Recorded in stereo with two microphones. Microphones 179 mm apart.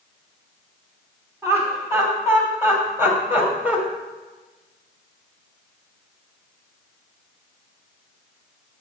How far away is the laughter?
About 3 m.